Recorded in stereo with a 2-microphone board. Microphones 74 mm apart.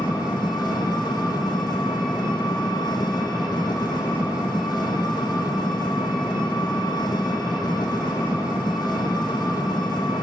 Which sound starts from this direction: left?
An engine running, at 0.0 s.